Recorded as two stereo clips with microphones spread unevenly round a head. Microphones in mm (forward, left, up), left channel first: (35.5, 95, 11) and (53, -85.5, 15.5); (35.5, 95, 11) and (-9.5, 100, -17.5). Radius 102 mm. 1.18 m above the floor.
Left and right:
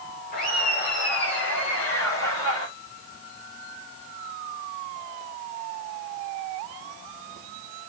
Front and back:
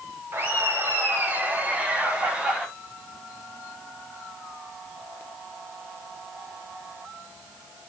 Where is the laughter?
145° left, 5 m; by 2.7 s 105° left, 4 m.